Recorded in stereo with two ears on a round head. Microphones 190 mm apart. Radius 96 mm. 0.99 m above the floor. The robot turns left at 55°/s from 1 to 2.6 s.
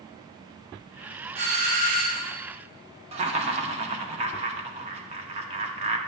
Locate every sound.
1.4 s a doorbell: 45° right, 1.3 m; by 2.4 s 100° right, 1.3 m
3.1 s laughter: 30° right (ahead or behind), 0.9 m